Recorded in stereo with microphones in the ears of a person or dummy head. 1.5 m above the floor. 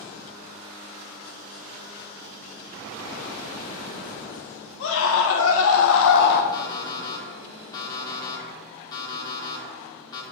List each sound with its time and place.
4.8 s a scream: 70° left (ahead or behind), 1.6 m; by 6.4 s 50° left (ahead or behind), 0.7 m
6.5 s an alarm clock: 25° left (ahead or behind), 1.9 m